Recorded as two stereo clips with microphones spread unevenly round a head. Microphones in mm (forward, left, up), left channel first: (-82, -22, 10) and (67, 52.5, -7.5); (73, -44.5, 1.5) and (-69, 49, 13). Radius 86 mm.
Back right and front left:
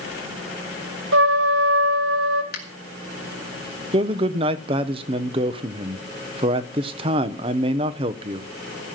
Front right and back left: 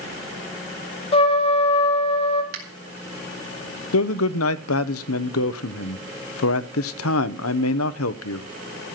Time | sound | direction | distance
1.1 | a trumpet | 25° left | 2 m
2.5 | a finger snap | straight behind | 3.5 m
3.9 | a man speaking | 35° right | 0.9 m